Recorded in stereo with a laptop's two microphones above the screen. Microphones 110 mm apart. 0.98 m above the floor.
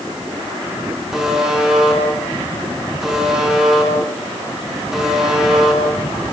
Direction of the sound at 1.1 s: 5° right (ahead or behind).